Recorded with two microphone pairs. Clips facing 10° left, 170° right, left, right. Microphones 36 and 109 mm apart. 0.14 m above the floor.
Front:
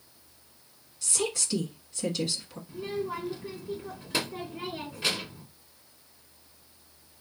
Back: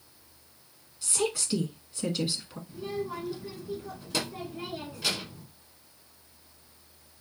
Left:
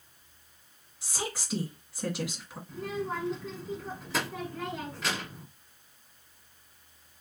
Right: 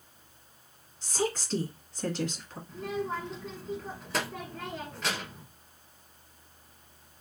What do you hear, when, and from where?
1.0 s a woman speaking: 155° left, 1.1 m
2.7 s a child speaking: 5° left, 0.8 m